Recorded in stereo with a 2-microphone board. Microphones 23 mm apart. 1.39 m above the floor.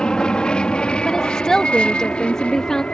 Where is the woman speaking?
25° left (ahead or behind).